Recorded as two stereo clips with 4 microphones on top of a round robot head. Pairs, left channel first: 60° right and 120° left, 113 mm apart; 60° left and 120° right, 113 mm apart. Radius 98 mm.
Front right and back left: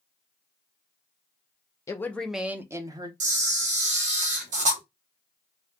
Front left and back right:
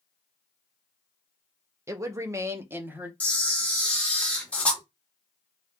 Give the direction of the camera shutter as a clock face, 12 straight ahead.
7 o'clock.